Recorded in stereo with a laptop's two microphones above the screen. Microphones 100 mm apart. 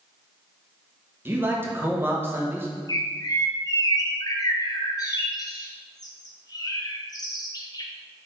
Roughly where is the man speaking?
Right.